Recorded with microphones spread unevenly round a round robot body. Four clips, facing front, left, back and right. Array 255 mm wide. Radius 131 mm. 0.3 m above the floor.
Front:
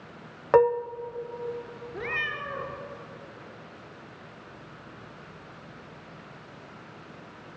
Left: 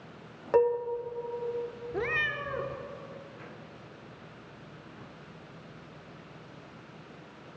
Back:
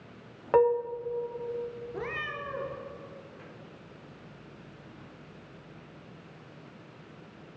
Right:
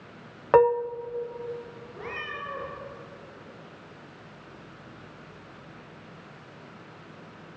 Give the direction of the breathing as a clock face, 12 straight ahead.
I don't hear breathing.